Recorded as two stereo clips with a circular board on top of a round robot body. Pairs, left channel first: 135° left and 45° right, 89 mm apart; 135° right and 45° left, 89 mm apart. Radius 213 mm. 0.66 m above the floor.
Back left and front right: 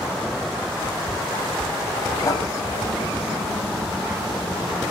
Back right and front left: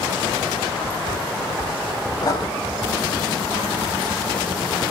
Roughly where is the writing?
Behind.